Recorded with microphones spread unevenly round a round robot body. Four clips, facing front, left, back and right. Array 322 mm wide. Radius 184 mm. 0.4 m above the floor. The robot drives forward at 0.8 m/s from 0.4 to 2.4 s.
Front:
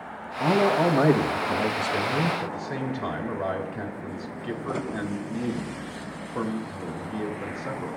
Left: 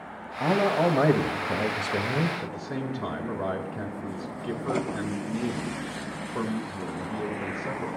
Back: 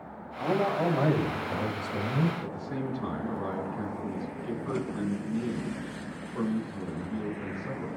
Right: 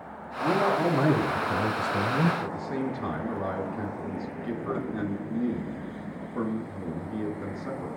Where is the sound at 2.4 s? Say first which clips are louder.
Right 2 dB, front 4 dB; 85° left, 4 m.